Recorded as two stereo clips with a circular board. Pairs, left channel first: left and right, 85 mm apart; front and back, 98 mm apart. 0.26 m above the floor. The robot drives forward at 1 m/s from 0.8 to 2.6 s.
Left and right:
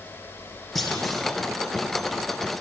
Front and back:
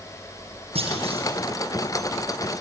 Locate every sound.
0.8 s a clunk: straight behind, 3.5 m